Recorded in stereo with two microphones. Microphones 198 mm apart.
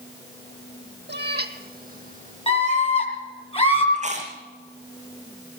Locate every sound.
1.1 s a cat meowing: 65° right (ahead or behind), 1.4 m; by 3.0 s 35° right (ahead or behind), 2.5 m
2.5 s a scream: 30° left (ahead or behind), 6.5 m
3.9 s chewing: 35° right (ahead or behind), 4 m